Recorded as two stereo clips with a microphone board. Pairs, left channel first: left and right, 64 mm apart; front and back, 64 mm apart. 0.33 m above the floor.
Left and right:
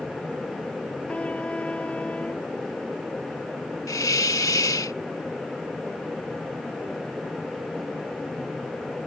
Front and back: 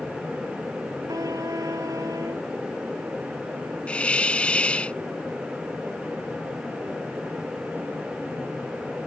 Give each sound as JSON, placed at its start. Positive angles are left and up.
{"t": 1.1, "sound": "a trumpet", "azimuth_deg": 160}
{"t": 3.9, "sound": "a hiss", "azimuth_deg": 70}